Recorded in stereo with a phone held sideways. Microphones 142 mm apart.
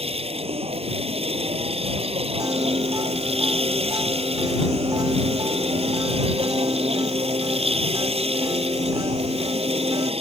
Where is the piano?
25° right (ahead or behind).